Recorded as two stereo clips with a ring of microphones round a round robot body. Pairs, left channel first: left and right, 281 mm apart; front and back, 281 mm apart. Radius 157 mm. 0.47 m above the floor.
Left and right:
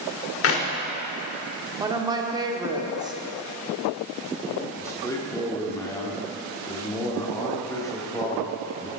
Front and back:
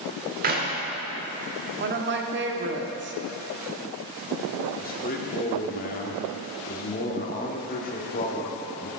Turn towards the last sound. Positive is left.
turn(degrees=20)